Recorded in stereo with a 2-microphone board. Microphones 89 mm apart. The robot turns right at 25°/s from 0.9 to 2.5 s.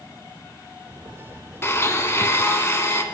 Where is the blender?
30° left (ahead or behind), 0.5 m.